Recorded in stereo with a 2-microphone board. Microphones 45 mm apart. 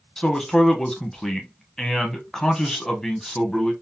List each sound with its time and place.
0.2 s a man speaking: 10° left (ahead or behind), 0.9 m